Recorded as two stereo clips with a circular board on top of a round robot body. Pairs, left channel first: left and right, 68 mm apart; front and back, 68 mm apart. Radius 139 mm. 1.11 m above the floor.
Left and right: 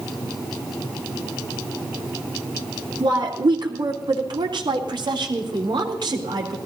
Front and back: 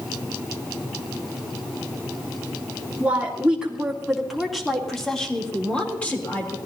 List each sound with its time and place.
3.0 s a woman speaking: 110° right, 3 m; by 6.6 s 65° right, 4.5 m